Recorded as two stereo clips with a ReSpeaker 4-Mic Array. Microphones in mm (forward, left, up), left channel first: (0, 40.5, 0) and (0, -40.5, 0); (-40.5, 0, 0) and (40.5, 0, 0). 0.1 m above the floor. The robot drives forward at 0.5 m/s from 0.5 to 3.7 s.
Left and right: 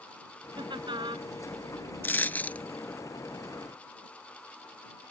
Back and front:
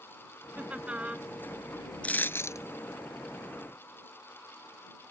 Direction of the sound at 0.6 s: 75° right.